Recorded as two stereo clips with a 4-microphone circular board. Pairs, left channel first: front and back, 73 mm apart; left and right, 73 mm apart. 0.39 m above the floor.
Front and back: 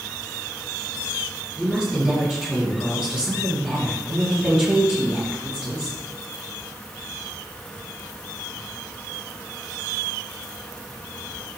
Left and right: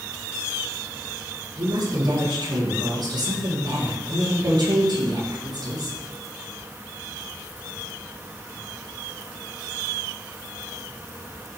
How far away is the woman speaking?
About 6.5 m.